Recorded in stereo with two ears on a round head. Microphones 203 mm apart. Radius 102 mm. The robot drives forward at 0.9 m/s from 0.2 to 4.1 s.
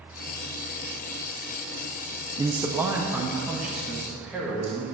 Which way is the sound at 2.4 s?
20° right (ahead or behind).